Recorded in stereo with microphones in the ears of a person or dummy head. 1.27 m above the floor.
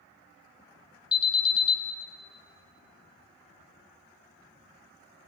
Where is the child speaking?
No child speaking in this recording.